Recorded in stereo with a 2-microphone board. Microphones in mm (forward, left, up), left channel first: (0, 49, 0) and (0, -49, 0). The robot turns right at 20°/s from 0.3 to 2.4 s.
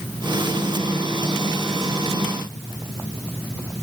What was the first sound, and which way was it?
Only background noise.